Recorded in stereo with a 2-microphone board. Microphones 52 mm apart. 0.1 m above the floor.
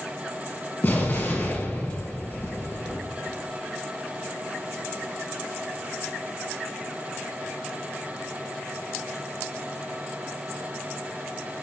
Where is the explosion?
40° left (ahead or behind), 1.9 m.